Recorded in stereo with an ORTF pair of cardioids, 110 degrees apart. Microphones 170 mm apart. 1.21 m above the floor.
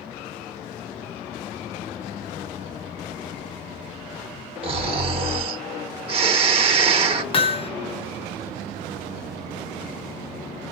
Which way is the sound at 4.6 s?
35° right.